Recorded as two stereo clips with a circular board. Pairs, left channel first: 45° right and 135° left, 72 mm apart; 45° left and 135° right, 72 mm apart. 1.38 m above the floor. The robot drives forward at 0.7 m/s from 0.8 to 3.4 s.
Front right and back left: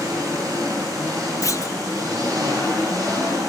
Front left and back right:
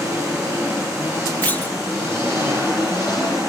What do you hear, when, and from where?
0.0 s an engine running: 170° left, 8.5 m; by 3.5 s 175° left, 10.5 m
1.4 s a clunk: 15° right, 1.1 m; by 1.8 s 20° right, 0.9 m